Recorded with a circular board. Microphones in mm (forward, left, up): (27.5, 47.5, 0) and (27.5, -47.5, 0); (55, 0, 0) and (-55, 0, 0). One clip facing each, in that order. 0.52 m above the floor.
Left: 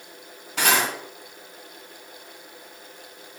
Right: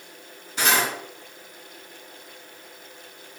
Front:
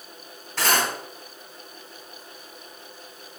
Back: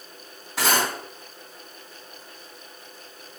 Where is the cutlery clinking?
100° left, 1.7 m.